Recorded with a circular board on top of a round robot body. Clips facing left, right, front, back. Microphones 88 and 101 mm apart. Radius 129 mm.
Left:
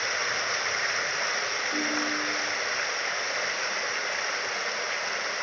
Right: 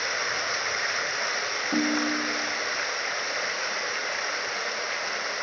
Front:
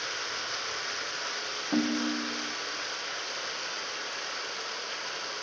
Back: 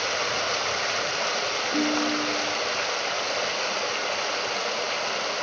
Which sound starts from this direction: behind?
Running water, at 0.0 s.